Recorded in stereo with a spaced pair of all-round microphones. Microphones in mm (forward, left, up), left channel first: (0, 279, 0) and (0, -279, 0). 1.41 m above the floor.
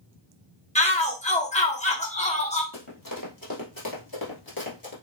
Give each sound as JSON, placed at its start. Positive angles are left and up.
{"t": 0.8, "sound": "a shout", "side_deg": 10, "distance_m": 1.3}
{"t": 2.7, "sound": "running footsteps", "side_deg": 35, "distance_m": 2.0}